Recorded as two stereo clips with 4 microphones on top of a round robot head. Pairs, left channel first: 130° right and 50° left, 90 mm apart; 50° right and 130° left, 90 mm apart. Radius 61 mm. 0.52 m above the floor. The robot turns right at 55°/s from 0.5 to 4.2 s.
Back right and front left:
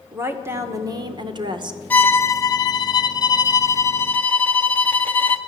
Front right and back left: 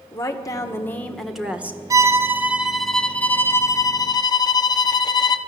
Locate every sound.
0.1 s a woman speaking: 5° right, 1.9 m; by 1.8 s 65° left, 1.9 m
1.9 s a violin: 165° left, 1.4 m; by 5.4 s 65° right, 1.4 m